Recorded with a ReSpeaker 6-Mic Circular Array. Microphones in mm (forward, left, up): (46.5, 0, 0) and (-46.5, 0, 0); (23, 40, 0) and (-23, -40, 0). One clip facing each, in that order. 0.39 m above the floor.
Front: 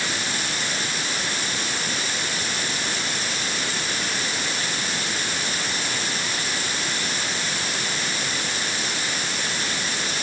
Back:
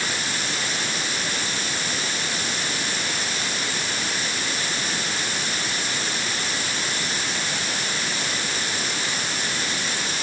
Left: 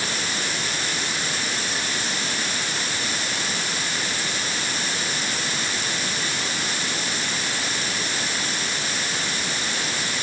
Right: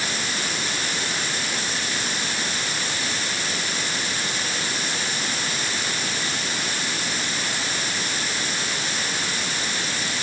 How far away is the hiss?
I don't hear a hiss.